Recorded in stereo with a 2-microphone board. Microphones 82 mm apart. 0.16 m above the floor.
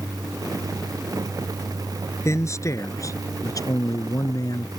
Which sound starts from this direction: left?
A man speaking, at 2.2 s.